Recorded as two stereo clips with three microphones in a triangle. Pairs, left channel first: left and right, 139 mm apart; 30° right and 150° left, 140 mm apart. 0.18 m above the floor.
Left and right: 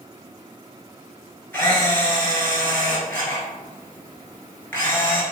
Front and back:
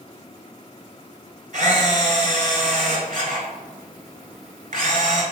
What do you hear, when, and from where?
1.5 s a camera shutter: 165° left, 0.8 m